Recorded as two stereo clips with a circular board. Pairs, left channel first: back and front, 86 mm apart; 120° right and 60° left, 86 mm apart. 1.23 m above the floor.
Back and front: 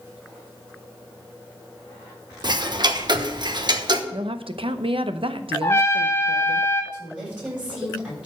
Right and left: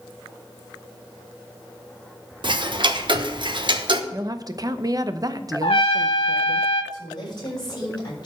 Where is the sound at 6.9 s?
75° right, 7 m.